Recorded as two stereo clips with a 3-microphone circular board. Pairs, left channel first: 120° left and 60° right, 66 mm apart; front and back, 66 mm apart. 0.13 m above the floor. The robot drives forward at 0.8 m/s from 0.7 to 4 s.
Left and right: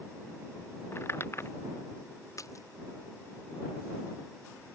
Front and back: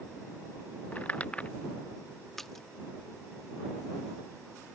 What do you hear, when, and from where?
0.9 s crumpling: 65° left; by 1.5 s 70° left
2.4 s a splash: 85° left